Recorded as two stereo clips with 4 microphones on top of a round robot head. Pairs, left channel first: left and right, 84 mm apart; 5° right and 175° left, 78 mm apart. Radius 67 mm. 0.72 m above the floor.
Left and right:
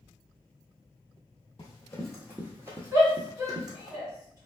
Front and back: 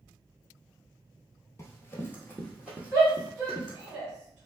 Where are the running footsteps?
30° left, 0.9 m; by 3.9 s 125° right, 1.4 m.